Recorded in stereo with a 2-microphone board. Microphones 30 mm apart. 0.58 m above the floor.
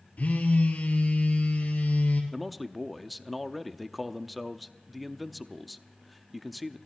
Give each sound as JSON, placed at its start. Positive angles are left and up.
{"t": 0.2, "sound": "a phone buzzing", "side_deg": 60, "distance_m": 3.5}
{"t": 2.3, "sound": "a man speaking", "side_deg": 0, "distance_m": 0.6}